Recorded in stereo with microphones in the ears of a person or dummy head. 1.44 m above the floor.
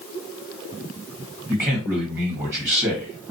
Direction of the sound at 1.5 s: 15° right (ahead or behind).